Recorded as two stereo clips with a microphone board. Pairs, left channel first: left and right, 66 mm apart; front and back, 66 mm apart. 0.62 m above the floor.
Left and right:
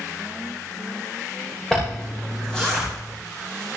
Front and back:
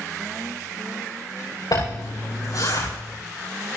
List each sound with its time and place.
1.7 s a zipper: 10° left, 9.5 m